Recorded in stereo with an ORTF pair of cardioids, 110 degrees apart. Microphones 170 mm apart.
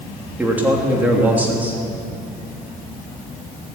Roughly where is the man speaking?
Ahead.